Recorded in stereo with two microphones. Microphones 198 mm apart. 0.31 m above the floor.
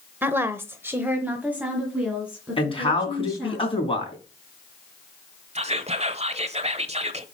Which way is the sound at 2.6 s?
25° left (ahead or behind).